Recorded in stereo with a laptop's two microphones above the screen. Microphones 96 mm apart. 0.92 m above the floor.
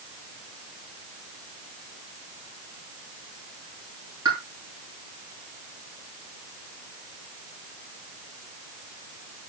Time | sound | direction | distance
4.2 | a pop | 45° right (ahead or behind) | 6.5 m